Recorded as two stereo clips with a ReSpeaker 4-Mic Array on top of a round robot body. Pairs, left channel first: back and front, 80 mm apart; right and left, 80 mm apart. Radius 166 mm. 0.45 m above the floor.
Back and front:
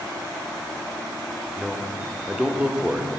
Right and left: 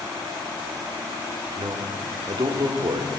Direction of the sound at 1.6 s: 75° left.